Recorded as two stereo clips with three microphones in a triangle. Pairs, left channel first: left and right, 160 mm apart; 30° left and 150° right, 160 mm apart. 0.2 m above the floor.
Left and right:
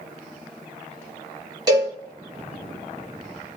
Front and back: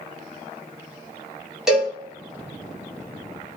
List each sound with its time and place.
1.7 s a cowbell: 65° right, 0.9 m